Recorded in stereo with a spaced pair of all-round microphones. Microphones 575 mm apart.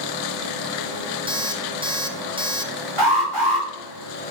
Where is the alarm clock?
10° right (ahead or behind), 0.8 m.